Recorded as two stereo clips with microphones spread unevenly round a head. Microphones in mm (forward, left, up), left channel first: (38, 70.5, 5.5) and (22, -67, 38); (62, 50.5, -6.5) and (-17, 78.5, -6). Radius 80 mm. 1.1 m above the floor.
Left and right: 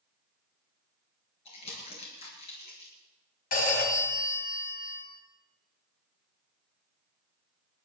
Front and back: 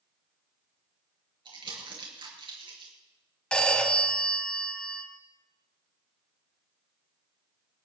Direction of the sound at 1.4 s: 140° left.